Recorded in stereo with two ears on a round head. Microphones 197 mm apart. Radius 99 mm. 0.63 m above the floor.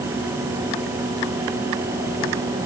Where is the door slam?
I don't hear a door slam.